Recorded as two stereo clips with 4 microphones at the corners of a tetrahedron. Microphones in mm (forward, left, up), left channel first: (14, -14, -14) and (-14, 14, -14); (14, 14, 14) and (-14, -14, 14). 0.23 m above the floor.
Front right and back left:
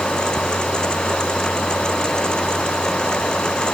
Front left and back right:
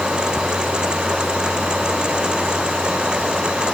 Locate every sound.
Only background noise.